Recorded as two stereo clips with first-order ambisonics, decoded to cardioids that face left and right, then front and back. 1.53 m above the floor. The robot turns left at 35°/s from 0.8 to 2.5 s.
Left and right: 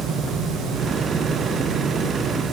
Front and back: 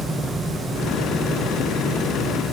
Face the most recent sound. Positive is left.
No sound to turn to.